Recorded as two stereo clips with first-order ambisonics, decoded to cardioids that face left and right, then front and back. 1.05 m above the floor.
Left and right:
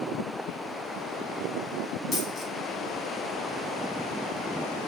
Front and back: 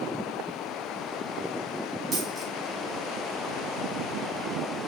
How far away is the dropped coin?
About 1.0 m.